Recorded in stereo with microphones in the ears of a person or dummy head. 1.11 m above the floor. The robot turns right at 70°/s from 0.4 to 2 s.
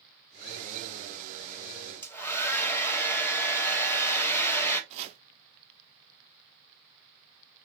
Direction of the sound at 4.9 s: 30° right (ahead or behind).